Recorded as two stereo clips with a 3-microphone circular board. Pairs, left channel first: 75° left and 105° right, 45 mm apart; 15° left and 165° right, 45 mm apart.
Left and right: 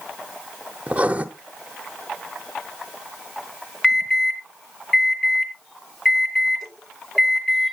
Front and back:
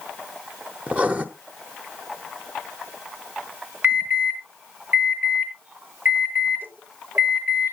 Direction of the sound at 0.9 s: 130° right.